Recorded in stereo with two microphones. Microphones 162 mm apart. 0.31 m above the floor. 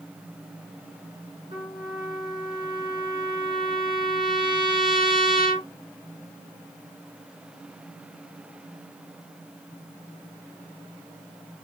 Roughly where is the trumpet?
Left.